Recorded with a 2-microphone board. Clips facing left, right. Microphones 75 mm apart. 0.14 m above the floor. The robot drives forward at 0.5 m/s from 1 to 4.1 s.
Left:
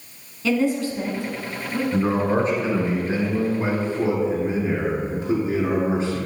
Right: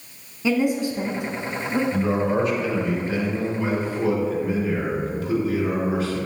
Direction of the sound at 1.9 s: 35° left (ahead or behind).